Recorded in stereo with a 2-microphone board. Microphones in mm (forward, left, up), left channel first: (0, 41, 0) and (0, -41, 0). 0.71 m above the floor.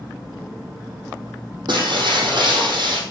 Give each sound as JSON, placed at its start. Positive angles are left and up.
{"t": 1.7, "sound": "breaking glass", "side_deg": -65, "distance_m": 5.0}